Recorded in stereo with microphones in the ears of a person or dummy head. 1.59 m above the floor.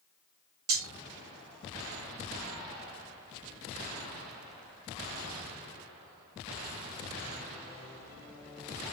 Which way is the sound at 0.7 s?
40° right (ahead or behind).